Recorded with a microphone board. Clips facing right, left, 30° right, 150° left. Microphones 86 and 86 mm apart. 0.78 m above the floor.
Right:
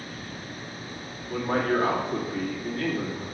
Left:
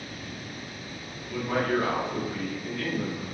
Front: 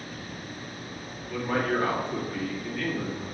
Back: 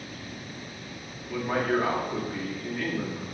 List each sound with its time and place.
1.3 s a man speaking: 130° right, 1.8 m